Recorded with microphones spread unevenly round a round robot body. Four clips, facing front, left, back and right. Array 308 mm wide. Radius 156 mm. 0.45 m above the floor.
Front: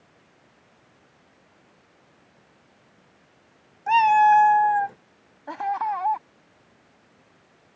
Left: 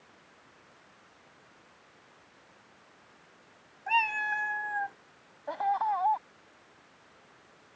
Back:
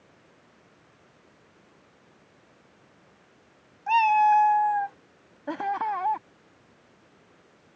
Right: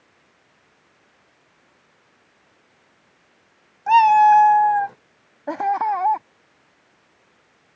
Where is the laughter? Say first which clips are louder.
Right 8 dB, front 2 dB; 120° right.